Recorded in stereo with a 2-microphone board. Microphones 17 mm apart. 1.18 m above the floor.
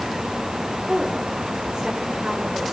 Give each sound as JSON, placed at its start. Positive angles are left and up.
{"t": 0.9, "sound": "a woman speaking", "side_deg": -50, "distance_m": 5.0}